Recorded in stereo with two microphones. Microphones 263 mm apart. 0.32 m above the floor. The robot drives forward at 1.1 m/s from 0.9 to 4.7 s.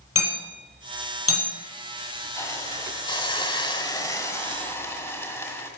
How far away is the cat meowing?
I don't hear a cat meowing.